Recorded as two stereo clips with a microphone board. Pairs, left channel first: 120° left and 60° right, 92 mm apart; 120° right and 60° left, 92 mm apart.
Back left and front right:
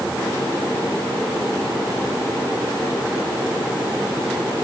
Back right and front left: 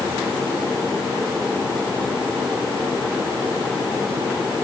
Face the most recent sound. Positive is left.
No sound to turn to.